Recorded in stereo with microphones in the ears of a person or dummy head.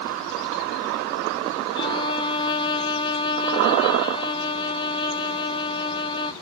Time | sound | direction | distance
1.8 | a violin | 25° left (ahead or behind) | 0.6 m